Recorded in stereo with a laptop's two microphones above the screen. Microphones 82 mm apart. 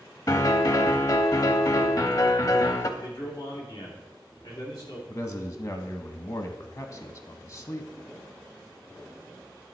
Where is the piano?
45° left (ahead or behind), 0.7 m.